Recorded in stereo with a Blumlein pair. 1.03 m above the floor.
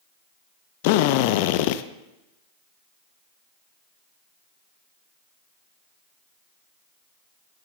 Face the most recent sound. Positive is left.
turn(degrees=50)